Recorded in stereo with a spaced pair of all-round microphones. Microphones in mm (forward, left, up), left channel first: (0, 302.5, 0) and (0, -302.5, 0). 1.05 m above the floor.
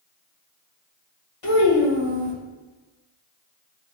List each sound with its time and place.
1.4 s a child speaking: 60° left (ahead or behind), 1.1 m